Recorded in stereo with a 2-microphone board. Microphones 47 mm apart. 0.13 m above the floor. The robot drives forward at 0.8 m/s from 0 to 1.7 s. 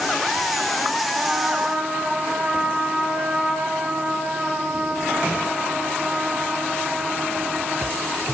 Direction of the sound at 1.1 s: 15° right (ahead or behind).